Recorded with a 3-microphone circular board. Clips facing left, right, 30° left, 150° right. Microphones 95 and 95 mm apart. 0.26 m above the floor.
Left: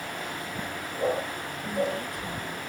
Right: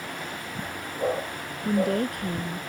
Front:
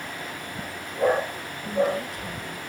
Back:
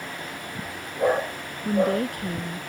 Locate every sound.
1.6 s a woman speaking: 120° right